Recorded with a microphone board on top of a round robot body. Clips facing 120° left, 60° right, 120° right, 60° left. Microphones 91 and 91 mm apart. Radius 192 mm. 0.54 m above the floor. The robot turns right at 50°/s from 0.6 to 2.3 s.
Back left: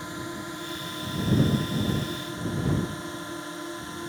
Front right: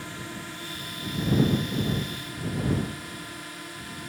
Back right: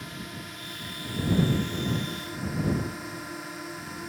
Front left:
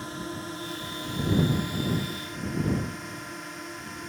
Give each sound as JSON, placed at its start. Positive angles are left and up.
{"t": 0.0, "sound": "a drone", "azimuth_deg": 70}